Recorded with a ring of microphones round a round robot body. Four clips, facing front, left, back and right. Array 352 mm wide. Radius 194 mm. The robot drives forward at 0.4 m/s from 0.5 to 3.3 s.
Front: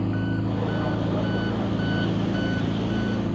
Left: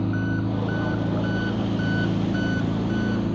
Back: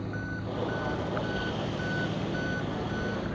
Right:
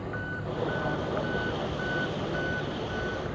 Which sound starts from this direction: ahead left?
An engine running, at 0.0 s.